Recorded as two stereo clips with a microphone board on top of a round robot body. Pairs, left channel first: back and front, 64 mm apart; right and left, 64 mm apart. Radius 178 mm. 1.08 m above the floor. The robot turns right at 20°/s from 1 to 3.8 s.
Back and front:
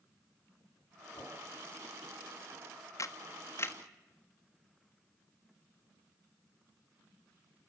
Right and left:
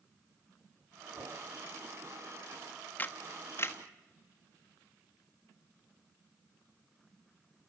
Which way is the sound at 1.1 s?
135° left.